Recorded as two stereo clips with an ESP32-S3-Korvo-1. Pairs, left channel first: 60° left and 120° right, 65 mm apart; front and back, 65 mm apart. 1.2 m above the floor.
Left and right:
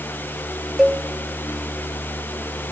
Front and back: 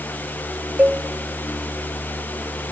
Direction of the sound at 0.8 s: 175° left.